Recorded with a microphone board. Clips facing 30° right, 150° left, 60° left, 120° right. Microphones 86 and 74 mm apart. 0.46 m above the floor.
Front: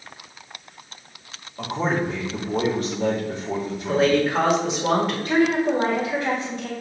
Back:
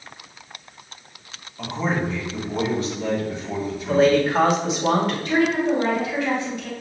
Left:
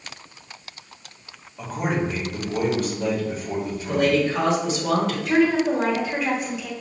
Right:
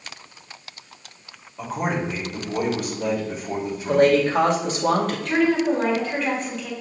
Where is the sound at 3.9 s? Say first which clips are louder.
Back 2 dB, right 4 dB; 120° right, 1.4 m.